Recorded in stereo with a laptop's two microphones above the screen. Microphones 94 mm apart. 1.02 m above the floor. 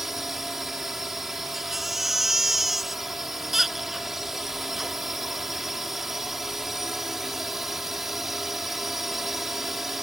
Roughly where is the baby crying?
Centre.